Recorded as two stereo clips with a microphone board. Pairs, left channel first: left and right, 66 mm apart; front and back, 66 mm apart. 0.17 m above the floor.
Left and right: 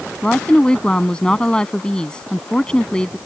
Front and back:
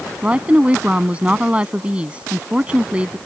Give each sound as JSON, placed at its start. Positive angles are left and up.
{"t": 0.2, "sound": "a woman speaking", "azimuth_deg": 145}